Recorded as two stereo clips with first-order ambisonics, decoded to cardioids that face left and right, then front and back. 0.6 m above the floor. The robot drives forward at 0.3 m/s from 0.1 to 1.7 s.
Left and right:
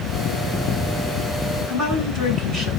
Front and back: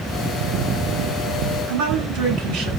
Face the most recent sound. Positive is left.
turn(degrees=-175)